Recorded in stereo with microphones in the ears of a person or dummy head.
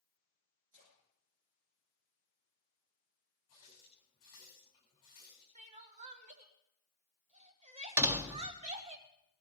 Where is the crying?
40° right (ahead or behind), 1.1 m.